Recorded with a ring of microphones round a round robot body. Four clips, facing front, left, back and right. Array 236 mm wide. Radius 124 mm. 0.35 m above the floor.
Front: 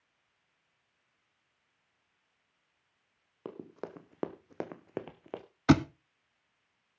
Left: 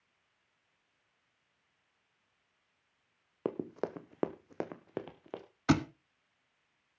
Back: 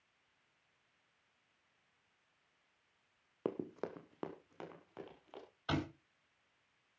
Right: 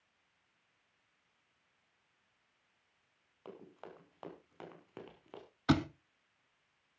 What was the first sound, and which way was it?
Running footsteps, 110° left.